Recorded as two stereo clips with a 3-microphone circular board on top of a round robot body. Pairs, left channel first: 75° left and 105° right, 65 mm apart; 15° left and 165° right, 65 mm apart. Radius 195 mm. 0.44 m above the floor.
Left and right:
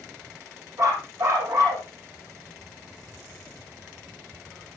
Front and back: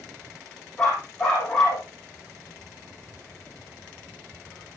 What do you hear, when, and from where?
0.8 s a dog barking: 70° right, 7.5 m